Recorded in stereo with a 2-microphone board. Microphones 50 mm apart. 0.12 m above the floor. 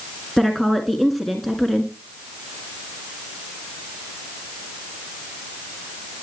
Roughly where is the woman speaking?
Centre.